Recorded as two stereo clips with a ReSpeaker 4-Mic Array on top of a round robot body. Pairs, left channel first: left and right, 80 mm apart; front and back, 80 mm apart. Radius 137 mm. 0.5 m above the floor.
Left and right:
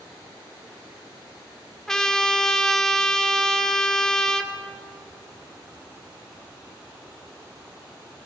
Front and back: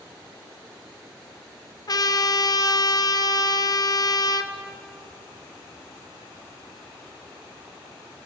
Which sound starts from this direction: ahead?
A trumpet, at 1.9 s.